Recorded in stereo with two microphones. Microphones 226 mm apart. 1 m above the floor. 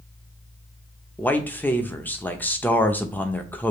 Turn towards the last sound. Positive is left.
turn(degrees=10)  # may be behind; listen again after turning